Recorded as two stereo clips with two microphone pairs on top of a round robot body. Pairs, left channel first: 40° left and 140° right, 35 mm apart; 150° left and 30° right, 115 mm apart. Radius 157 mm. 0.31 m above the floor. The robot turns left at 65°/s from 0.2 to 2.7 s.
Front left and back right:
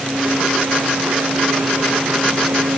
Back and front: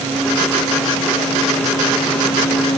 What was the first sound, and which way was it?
Only background noise.